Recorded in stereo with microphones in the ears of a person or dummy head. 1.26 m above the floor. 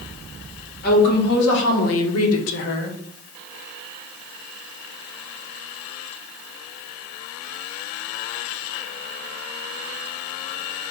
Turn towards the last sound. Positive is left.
turn(degrees=45)  # may be behind; listen again after turning